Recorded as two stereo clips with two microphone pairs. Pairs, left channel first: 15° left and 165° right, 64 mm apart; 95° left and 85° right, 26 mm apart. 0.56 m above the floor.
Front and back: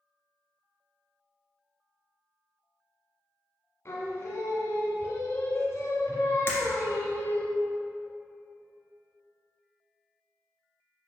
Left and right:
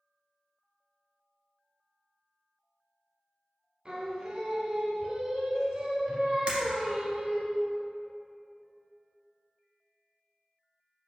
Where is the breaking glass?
45° right, 1.8 m.